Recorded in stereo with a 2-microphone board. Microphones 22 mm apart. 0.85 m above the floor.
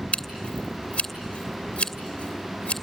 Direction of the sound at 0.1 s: 65° left (ahead or behind).